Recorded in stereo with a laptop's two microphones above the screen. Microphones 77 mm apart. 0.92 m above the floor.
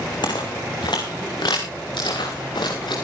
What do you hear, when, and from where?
0.2 s footsteps: 70° left (ahead or behind), 3 m; by 3.0 s 80° left, 4.5 m